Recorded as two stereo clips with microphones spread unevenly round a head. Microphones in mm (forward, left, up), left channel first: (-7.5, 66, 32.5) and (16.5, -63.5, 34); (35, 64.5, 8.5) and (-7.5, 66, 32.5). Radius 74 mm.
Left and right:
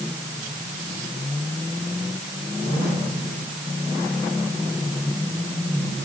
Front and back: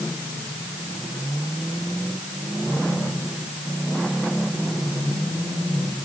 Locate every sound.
Only background noise.